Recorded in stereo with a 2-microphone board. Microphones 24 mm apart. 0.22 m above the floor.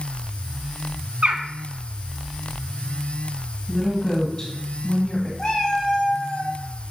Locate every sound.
1.2 s a bird: 55° right (ahead or behind), 0.8 m
3.7 s a woman speaking: 25° left (ahead or behind), 1.9 m
5.4 s a cat meowing: 30° left (ahead or behind), 3 m